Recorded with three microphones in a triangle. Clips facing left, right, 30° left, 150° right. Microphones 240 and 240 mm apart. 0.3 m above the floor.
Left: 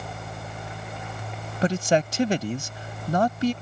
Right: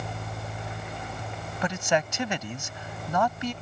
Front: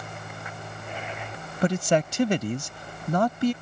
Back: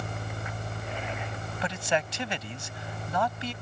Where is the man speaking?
50° left.